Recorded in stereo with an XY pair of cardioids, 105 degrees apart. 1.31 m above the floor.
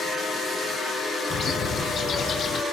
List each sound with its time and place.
1.3 s a bird: 50° left, 0.6 m